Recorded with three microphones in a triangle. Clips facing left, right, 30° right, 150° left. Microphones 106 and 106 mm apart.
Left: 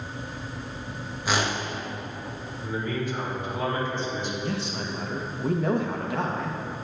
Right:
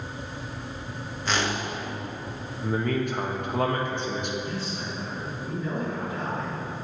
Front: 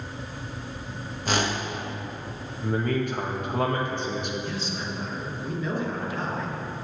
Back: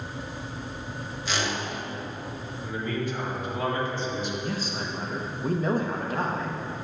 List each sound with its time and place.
1.2 s a whoosh: 10° left, 0.9 m
2.6 s a man speaking: 60° right, 1.3 m
4.4 s a man speaking: 105° left, 1.1 m